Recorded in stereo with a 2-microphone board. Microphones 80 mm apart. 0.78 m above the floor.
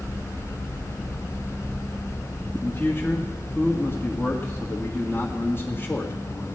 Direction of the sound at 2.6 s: 30° left (ahead or behind).